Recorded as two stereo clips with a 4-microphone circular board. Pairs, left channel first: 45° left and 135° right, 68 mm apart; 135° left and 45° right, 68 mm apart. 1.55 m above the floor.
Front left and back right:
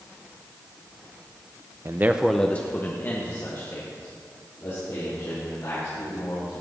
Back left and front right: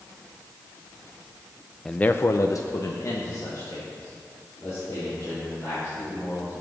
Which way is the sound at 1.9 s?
145° right.